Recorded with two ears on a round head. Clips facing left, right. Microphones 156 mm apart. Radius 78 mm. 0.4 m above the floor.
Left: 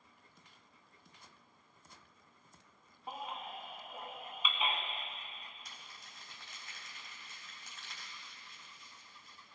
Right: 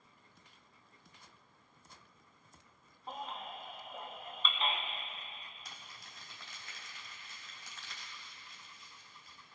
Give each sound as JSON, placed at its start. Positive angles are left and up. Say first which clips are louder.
{"t": 3.1, "sound": "a baby crying", "louder": "even", "side_deg": 10, "distance_m": 1.5}
{"t": 5.7, "sound": "crumpling", "louder": "right 1 dB", "side_deg": -70, "distance_m": 4.0}